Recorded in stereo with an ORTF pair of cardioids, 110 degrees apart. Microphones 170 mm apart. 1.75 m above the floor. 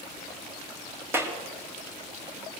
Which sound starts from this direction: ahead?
A clap, at 1.1 s.